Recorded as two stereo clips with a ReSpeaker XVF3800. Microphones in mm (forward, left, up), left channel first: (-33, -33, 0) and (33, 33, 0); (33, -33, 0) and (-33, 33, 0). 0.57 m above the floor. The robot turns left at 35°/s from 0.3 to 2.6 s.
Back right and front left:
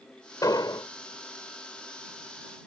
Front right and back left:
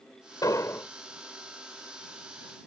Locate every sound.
0.4 s an explosion: 90° right; by 0.9 s 105° right